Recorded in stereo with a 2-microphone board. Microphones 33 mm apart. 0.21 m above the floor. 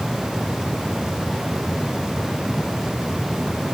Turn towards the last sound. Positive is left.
No sound to turn to.